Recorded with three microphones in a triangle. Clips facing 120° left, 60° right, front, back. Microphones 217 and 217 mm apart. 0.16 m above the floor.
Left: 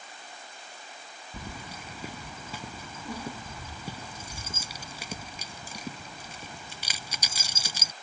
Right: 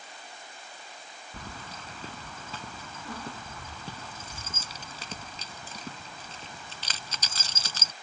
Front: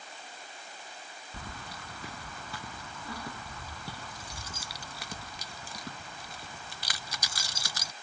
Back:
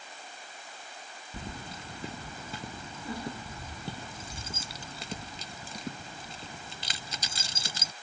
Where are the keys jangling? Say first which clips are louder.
Left 2 dB, back 4 dB; straight behind.